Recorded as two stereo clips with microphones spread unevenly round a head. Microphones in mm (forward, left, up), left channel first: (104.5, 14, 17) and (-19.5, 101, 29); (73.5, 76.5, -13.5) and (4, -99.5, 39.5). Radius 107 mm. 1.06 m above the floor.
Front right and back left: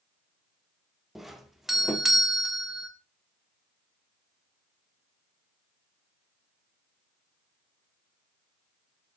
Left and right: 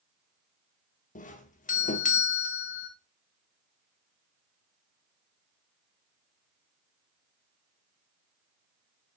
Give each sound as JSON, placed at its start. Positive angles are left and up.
{"t": 1.1, "sound": "a doorbell", "azimuth_deg": 55, "distance_m": 1.4}